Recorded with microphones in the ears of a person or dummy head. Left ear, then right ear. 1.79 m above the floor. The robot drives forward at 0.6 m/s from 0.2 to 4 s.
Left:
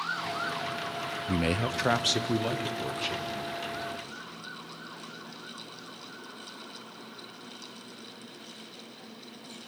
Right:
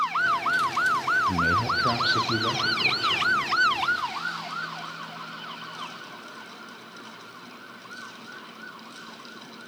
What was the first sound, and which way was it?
A man speaking, 60° left (ahead or behind).